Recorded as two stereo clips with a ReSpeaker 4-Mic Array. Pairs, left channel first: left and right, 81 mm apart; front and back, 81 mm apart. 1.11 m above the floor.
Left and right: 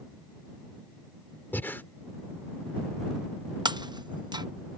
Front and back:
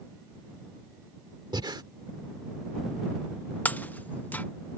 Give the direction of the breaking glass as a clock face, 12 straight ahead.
2 o'clock.